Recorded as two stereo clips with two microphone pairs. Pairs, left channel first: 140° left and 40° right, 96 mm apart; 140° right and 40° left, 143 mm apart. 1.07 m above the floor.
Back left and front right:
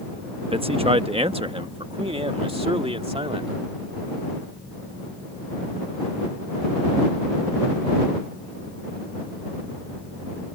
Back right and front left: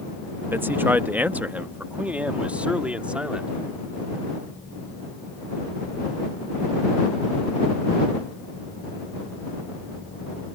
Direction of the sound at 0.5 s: 30° right.